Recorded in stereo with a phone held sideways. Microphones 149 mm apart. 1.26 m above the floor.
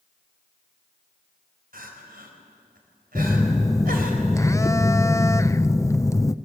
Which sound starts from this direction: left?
A phone buzzing, at 3.1 s.